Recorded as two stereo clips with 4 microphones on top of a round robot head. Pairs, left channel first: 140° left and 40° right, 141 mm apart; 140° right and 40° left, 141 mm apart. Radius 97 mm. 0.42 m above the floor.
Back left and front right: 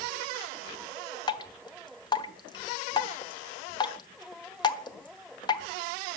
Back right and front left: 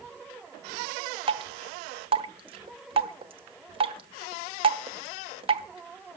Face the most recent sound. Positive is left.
turn(degrees=85)